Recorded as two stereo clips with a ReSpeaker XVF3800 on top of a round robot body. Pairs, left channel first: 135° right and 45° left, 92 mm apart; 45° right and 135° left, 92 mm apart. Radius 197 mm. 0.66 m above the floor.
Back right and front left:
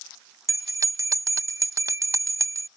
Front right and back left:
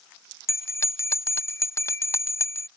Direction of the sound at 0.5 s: 5° left.